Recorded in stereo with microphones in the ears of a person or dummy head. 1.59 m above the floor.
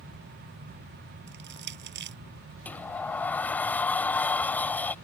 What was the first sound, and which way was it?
Crushing, 60° right (ahead or behind).